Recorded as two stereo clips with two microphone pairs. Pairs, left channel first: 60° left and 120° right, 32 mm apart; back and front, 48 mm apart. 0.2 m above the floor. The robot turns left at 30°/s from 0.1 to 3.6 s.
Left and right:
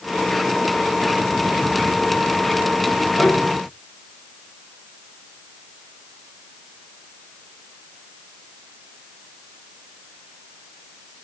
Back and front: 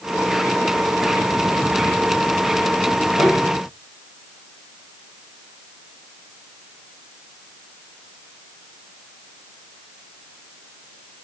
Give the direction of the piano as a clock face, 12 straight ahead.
11 o'clock.